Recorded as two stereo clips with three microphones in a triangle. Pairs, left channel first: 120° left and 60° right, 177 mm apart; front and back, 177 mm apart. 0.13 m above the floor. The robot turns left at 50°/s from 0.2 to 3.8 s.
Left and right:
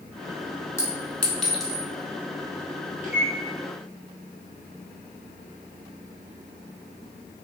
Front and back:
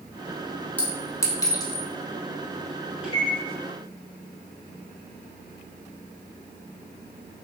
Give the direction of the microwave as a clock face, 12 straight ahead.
9 o'clock.